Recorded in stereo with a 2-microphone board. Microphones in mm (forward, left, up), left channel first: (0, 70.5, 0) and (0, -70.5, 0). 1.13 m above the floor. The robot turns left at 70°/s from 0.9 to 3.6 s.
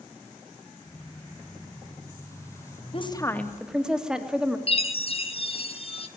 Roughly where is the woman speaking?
Ahead left.